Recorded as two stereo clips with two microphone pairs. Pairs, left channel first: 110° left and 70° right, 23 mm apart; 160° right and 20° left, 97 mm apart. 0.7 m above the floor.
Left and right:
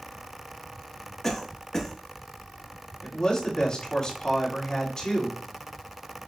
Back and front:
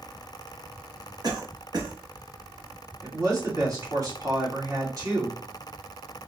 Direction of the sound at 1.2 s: 50° left.